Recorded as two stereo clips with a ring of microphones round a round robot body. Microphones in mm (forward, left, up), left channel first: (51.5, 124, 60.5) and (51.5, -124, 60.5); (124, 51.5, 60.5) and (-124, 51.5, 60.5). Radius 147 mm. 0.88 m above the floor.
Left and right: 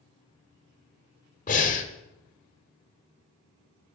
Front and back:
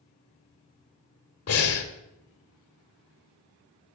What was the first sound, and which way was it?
Breathing, 30° left.